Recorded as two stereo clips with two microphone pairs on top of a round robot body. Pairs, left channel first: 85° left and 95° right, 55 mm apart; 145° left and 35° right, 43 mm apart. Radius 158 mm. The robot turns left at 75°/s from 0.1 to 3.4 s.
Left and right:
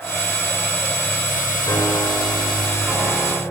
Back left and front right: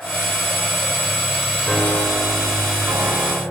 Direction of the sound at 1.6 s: 65° left.